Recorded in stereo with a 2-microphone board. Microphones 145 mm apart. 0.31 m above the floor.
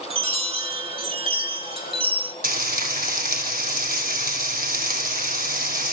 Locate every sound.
0.1 s a chime: 40° right (ahead or behind), 1.7 m
2.4 s frying: 85° right, 2.5 m